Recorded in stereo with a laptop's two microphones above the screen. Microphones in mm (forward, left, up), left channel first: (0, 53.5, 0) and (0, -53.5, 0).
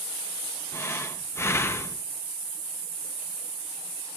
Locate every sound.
0.7 s breathing: 25° left (ahead or behind), 1.0 m